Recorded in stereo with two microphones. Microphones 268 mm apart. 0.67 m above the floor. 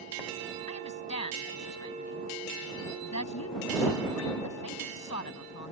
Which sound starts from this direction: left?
A woman speaking, at 0.7 s.